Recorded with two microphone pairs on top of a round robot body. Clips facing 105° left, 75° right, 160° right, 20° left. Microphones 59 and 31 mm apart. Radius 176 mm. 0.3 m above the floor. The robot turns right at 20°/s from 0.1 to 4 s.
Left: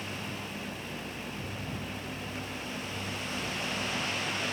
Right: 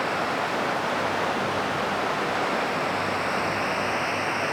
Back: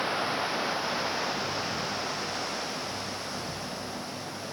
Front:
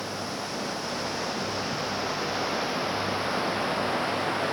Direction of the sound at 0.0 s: 100° right.